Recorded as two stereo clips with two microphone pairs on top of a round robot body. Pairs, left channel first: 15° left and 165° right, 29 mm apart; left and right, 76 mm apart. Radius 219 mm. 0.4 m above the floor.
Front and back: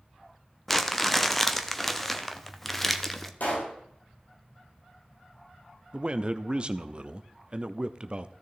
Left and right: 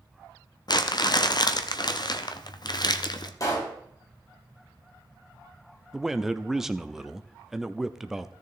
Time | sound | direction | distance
0.7 | crumpling | 100° left | 1.1 m
3.4 | a pop | 45° left | 3 m
5.9 | a man speaking | 170° right | 1.0 m